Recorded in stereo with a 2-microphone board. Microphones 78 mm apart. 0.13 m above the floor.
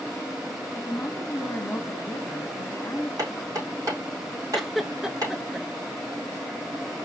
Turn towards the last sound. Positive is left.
turn(degrees=-5)  # may be behind; listen again after turning